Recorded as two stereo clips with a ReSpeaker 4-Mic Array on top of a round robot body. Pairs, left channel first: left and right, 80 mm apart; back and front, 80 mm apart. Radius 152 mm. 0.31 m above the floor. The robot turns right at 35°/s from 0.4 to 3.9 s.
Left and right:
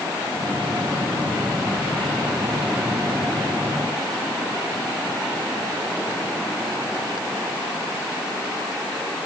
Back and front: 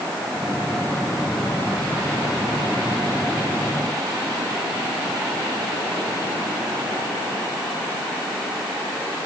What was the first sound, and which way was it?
Only background noise.